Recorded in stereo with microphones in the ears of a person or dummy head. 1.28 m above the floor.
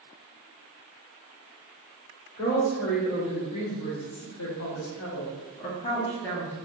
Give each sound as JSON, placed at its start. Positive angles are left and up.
{"t": 2.4, "sound": "a woman speaking", "side_deg": 75, "distance_m": 2.0}